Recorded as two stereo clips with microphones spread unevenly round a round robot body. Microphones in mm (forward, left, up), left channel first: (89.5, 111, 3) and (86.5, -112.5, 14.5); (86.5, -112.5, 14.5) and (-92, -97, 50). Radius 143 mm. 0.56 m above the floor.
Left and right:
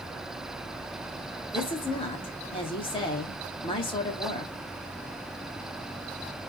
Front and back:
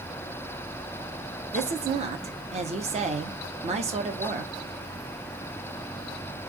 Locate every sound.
1.5 s a woman speaking: 130° left, 0.7 m